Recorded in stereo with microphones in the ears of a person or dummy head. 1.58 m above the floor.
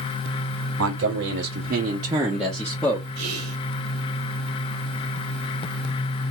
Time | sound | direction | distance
0.8 | a man speaking | 75° right (ahead or behind) | 1.1 m
3.1 | whispering | 75° right (ahead or behind) | 0.8 m